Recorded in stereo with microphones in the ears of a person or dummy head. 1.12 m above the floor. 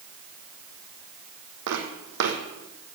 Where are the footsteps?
60° right (ahead or behind), 3 m.